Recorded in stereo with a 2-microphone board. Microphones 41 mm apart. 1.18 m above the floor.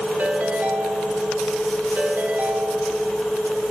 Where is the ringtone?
45° right (ahead or behind), 1.5 m.